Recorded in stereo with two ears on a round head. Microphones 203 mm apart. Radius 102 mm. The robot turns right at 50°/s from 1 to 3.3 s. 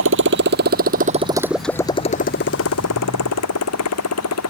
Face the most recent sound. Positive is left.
turn(degrees=80)